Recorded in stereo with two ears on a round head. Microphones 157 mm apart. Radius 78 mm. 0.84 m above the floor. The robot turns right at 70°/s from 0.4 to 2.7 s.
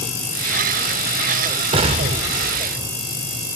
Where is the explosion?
115° right, 0.5 m; by 2.9 s 45° right, 0.5 m.